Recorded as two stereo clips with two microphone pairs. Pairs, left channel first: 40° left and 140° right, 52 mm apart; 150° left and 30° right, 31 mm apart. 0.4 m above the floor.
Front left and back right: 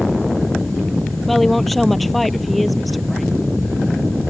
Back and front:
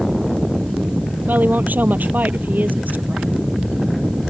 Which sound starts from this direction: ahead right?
A woman speaking, at 1.3 s.